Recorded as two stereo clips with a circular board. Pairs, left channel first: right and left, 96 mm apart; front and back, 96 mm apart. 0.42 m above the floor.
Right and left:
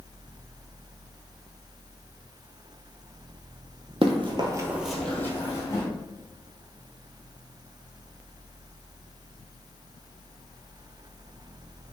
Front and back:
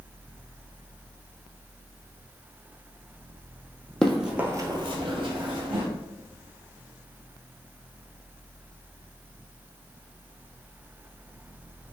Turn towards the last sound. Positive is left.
turn(degrees=-145)